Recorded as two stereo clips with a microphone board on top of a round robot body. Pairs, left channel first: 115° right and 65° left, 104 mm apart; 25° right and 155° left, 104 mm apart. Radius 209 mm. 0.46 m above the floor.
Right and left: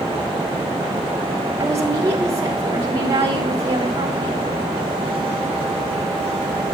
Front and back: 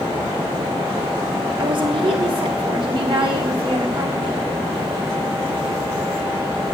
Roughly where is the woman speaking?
Behind left.